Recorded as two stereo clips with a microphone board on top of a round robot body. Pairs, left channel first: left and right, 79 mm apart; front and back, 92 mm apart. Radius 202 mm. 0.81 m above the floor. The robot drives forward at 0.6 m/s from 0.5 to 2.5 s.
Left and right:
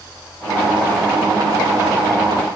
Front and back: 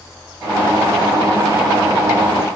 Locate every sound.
Only background noise.